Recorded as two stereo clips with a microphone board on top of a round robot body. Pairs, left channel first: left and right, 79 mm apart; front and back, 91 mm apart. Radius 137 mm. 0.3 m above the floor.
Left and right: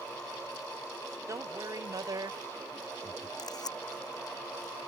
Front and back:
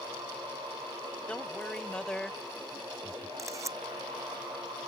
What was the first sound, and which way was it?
A man speaking, 70° right.